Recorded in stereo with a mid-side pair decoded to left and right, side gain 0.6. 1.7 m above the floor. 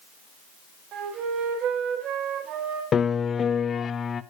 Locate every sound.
0.9 s a flute: 55° right, 4 m
2.9 s a piano: 35° left, 0.8 m